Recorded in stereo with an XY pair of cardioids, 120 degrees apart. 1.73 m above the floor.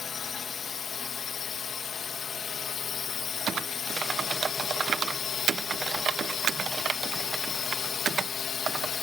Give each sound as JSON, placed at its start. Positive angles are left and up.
{"t": 0.0, "sound": "a drone", "azimuth_deg": 40}
{"t": 3.5, "sound": "typing on a keyboard", "azimuth_deg": -45}